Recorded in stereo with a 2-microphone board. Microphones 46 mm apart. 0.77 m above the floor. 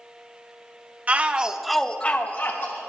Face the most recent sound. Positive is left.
turn(degrees=50)  # may be behind; listen again after turning